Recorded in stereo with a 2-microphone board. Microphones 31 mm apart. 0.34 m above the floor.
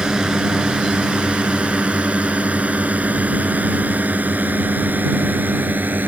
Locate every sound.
0.0 s a drone: 25° right (ahead or behind); by 6.1 s 70° right (ahead or behind)